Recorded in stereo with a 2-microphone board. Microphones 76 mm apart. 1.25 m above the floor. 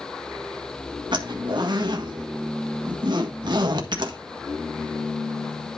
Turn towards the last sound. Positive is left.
turn(degrees=-85)